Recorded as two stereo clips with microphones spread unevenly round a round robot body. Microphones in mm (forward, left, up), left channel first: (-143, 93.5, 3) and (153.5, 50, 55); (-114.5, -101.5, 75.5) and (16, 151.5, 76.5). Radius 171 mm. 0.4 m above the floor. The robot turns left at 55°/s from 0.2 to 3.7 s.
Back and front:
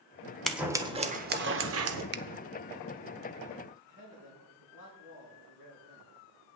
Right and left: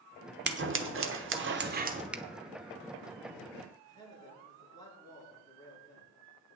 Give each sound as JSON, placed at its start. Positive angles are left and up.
{"t": 0.5, "sound": "scissors", "azimuth_deg": 95, "distance_m": 1.1}
{"t": 2.1, "sound": "a finger snap", "azimuth_deg": -20, "distance_m": 0.6}
{"t": 3.9, "sound": "a man speaking", "azimuth_deg": 165, "distance_m": 6.5}